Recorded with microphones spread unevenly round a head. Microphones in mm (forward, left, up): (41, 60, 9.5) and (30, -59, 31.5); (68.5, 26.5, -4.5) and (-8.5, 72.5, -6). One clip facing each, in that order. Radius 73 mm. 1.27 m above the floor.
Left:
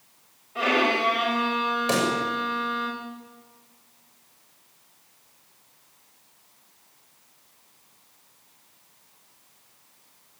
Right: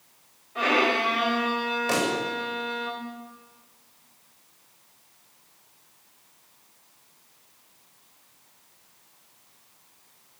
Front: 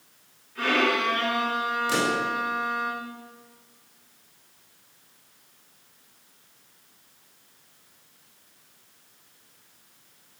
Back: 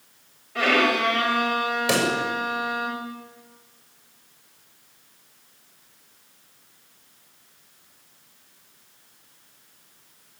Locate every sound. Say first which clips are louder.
0.6 s a violin: even, back 3 dB; 170° left, 7 m
1.9 s a pop: left 1 dB, back 3 dB; 155° left, 7 m